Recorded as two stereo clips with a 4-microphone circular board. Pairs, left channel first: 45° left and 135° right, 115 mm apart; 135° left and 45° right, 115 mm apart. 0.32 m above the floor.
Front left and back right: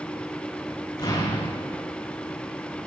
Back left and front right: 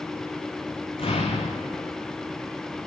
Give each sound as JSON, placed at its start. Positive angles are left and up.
{"t": 1.0, "sound": "an explosion", "azimuth_deg": 100, "distance_m": 5.0}